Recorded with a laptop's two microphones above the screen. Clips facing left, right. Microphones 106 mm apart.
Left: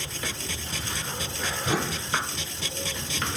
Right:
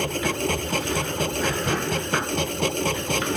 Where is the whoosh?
5° left (ahead or behind).